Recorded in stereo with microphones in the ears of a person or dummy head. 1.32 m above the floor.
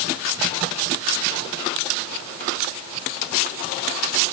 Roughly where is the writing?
No writing in this recording.